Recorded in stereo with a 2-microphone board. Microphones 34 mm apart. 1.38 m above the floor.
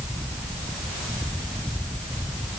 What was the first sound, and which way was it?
Only background noise.